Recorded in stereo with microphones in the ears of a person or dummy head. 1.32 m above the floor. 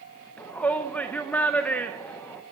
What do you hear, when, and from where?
0.4 s a shout: 20° left (ahead or behind), 0.8 m